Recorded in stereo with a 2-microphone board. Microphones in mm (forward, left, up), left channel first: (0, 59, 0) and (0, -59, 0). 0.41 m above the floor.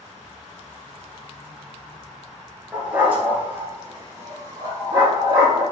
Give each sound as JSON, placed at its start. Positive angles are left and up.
{"t": 2.7, "sound": "a dog barking", "side_deg": -10, "distance_m": 2.5}